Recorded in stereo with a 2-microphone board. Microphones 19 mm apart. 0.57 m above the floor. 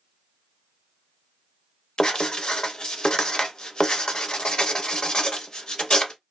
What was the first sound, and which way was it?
Writing, 40° left (ahead or behind).